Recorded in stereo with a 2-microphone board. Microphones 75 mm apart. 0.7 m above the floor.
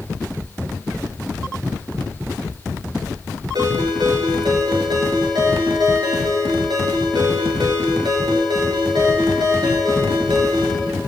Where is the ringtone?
70° right (ahead or behind), 4.5 m.